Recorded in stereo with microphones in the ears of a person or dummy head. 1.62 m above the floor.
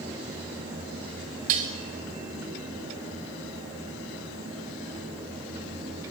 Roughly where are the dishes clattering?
Right.